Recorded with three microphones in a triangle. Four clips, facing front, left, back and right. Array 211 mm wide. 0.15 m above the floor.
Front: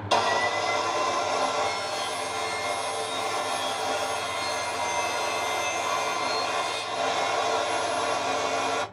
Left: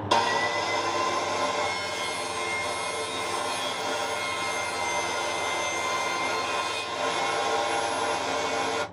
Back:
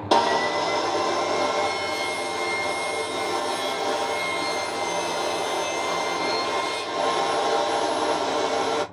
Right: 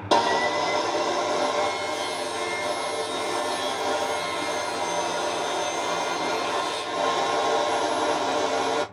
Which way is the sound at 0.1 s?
150° right.